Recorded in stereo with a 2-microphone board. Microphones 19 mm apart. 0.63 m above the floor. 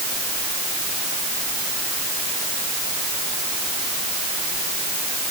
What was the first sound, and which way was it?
Only background noise.